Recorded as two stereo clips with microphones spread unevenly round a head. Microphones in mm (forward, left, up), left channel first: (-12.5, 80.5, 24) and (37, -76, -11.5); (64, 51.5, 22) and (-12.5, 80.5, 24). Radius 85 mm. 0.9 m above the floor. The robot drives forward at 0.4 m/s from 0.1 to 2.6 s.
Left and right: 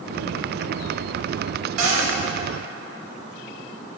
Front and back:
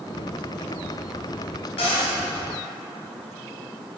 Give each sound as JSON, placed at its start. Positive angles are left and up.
{"t": 1.8, "sound": "a cupboard door", "azimuth_deg": -65, "distance_m": 1.1}